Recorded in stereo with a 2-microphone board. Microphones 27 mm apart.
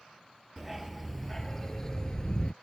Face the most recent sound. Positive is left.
turn(degrees=35)  # may be behind; listen again after turning